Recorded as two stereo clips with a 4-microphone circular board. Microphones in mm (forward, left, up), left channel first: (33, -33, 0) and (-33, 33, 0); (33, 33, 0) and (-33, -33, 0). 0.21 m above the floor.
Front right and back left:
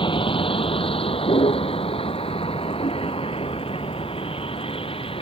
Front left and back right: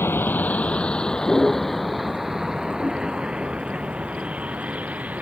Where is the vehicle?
20° right; by 5.2 s 60° right.